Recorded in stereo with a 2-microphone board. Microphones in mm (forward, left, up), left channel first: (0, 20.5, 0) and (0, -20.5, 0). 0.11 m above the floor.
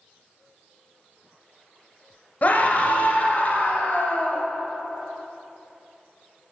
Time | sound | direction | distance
2.4 | a scream | 40° left (ahead or behind) | 1.5 m